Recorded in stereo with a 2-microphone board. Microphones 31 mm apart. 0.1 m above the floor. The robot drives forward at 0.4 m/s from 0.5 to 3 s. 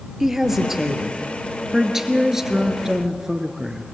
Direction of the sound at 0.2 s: 10° right (ahead or behind).